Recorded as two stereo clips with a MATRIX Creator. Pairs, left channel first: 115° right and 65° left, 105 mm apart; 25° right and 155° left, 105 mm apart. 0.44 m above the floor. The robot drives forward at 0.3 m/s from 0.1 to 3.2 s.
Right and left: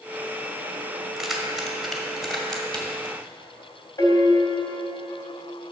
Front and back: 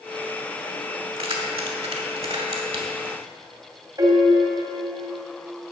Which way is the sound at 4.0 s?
160° right.